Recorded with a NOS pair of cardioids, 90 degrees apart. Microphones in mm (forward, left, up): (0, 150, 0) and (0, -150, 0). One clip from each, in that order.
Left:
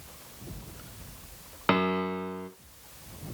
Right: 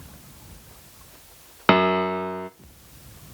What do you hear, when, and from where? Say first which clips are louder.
1.7 s a piano: right 8 dB; 30° right, 0.7 m